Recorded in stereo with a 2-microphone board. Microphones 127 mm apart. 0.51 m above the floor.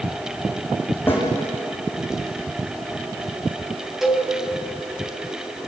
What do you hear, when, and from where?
1.1 s a snare drum: 15° left (ahead or behind), 8 m
4.0 s a cowbell: centre (ahead or behind), 4 m